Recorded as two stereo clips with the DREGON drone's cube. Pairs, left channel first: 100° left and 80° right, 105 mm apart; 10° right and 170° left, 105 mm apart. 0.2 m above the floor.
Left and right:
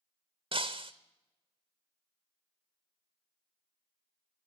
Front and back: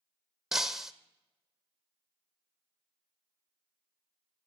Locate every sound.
0.5 s breaking glass: 105° right, 0.6 m